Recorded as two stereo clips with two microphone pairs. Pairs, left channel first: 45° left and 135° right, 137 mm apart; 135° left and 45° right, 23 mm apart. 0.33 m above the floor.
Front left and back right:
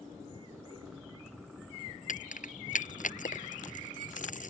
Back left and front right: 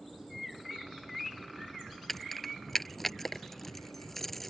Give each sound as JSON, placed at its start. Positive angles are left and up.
{"t": 2.1, "sound": "keys jangling", "azimuth_deg": 60}